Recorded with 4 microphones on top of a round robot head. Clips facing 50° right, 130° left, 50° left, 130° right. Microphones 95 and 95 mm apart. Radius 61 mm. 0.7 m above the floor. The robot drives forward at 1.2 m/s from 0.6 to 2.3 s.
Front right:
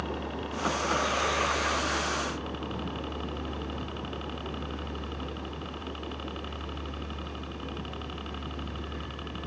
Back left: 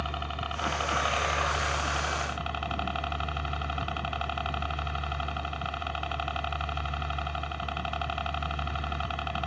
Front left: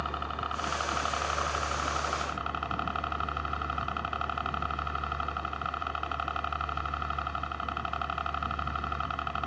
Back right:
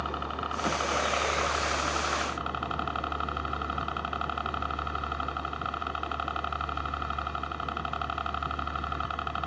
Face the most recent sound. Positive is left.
turn(degrees=145)